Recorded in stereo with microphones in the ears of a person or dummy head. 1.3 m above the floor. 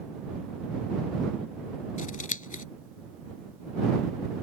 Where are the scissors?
45° left (ahead or behind).